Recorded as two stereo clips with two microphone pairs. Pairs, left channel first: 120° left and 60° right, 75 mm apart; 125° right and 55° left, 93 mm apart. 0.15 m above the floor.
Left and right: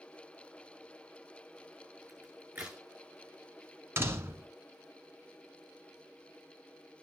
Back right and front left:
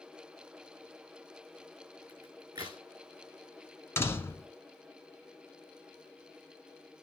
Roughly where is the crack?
Ahead.